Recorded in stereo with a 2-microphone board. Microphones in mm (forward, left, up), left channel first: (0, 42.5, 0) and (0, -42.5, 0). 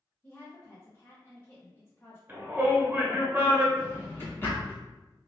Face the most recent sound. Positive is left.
turn(degrees=30)  # may be behind; listen again after turning